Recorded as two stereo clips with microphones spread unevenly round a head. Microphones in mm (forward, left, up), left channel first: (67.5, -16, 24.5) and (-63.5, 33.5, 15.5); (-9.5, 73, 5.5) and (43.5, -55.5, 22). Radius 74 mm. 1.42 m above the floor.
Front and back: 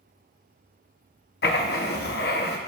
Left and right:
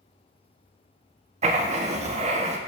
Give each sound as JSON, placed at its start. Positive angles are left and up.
{"t": 1.4, "sound": "writing", "azimuth_deg": -35, "distance_m": 0.7}